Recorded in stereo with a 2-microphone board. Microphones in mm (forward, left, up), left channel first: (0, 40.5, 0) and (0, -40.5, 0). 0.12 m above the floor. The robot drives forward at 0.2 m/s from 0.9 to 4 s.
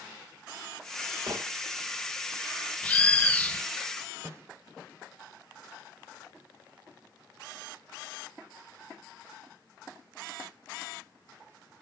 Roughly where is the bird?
Left.